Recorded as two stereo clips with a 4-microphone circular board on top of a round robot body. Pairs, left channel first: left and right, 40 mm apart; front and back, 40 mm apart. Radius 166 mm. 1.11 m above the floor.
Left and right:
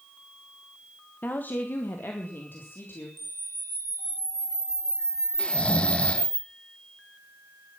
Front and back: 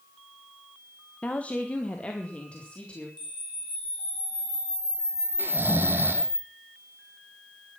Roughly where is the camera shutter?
Right.